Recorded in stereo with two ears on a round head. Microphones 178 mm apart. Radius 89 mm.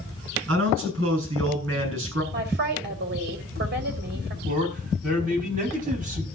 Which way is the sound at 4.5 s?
40° right (ahead or behind).